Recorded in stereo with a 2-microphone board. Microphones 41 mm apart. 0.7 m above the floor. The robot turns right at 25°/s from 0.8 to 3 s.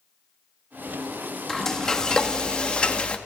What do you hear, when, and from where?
1.5 s frying: 20° left, 1.0 m; by 3.2 s 60° left, 1.0 m